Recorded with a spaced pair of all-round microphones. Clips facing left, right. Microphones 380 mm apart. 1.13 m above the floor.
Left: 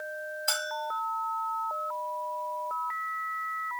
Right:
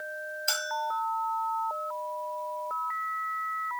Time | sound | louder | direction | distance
0.5 | a bell | even | 65° left (ahead or behind) | 1.3 m